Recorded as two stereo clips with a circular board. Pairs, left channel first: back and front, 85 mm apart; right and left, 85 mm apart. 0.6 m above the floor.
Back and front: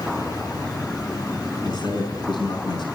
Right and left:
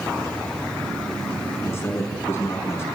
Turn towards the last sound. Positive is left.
turn(degrees=-150)